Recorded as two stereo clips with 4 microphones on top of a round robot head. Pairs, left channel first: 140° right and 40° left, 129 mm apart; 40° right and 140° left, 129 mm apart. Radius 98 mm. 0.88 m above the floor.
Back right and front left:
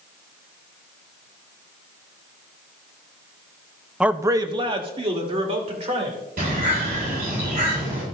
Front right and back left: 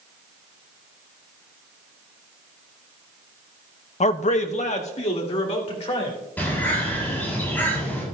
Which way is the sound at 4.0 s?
45° right.